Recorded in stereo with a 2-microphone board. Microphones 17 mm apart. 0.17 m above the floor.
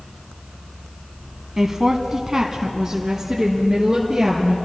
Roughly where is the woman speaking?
Right.